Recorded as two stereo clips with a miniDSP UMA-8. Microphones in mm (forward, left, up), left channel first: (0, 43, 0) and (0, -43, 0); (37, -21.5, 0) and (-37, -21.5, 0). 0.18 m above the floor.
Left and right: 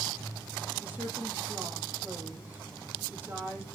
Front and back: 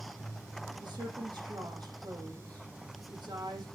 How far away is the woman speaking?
About 6 m.